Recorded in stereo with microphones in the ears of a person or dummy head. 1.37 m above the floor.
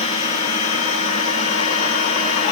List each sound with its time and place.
0.0 s a machine running: 40° left (ahead or behind), 4.5 m